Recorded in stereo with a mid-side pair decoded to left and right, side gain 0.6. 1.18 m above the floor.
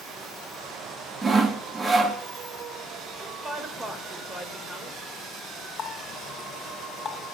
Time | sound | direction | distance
1.2 | sawing | 30° right | 2.5 m
3.2 | a woman speaking | 20° right | 4 m
5.8 | a running tap | 45° left | 2 m